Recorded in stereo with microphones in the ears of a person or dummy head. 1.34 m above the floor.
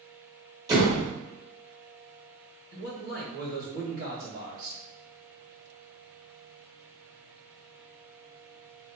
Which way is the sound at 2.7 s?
50° right (ahead or behind).